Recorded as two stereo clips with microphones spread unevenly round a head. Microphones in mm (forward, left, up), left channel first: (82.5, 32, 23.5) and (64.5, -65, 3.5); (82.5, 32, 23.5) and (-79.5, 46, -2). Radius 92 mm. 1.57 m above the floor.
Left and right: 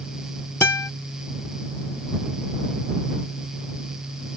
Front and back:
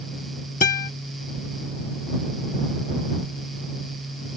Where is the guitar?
20° left.